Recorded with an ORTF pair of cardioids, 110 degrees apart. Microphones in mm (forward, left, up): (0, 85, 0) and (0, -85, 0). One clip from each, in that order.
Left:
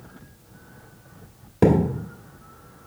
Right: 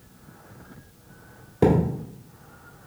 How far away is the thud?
About 1.8 m.